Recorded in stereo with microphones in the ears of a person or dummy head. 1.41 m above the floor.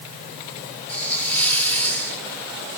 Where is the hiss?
10° left (ahead or behind), 2 m.